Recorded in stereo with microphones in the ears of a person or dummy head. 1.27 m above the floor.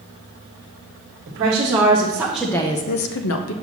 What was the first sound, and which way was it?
A woman speaking, 35° right (ahead or behind).